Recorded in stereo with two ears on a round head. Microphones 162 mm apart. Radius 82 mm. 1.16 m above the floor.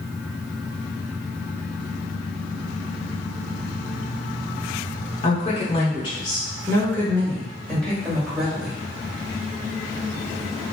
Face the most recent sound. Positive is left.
turn(degrees=0)  # may be behind; listen again after turning